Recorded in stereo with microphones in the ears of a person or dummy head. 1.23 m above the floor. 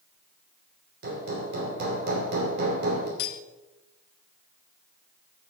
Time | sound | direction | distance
1.0 | hammering | 60° right (ahead or behind) | 2.5 m
3.2 | cutlery clinking | 60° left (ahead or behind) | 0.8 m